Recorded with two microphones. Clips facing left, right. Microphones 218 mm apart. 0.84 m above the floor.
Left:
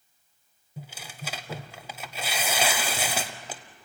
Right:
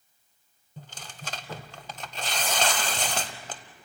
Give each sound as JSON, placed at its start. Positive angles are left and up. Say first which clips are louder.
{"t": 0.8, "sound": "tearing paper", "louder": "left 3 dB", "side_deg": 10, "distance_m": 0.8}